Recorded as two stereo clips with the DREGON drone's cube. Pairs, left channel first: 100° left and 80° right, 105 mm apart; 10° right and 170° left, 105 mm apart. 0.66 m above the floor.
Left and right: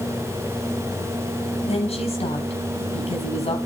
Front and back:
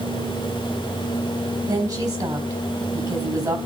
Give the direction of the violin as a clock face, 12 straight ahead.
I don't hear a violin.